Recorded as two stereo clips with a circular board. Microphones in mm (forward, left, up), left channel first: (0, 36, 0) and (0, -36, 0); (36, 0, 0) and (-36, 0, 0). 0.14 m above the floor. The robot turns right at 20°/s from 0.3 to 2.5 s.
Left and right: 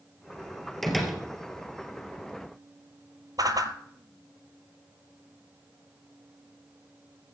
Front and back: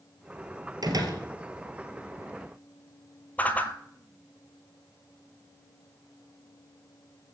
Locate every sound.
0.8 s a door slam: 175° left, 2.5 m; by 1.2 s 175° right, 2.5 m
3.4 s a whoosh: 65° right, 1.1 m